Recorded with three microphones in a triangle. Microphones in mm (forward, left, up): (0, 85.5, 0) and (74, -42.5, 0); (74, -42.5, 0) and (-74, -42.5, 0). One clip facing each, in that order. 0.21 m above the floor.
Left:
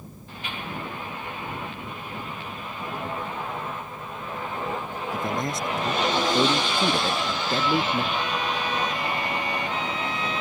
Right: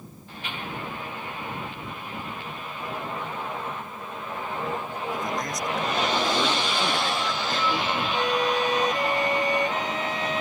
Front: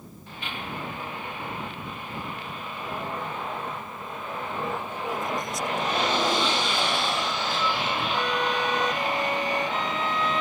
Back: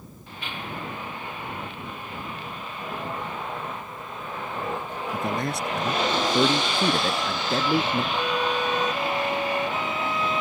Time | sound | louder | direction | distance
5.1 | a man speaking | left 4 dB, back 4 dB | straight behind | ?
8.1 | a violin | right 4 dB, back 1 dB | 100° right | ?